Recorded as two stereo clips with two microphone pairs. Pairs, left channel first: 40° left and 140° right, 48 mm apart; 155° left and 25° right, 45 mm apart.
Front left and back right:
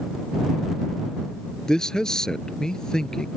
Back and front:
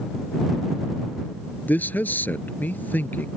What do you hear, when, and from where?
1.7 s a man speaking: 115° left